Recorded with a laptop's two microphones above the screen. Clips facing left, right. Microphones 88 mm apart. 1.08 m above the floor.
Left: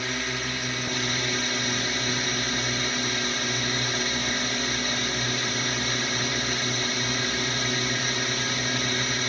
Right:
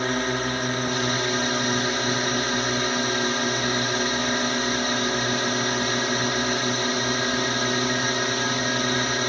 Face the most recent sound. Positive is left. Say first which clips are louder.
# right 7 dB
turn(degrees=-40)  # may be behind; listen again after turning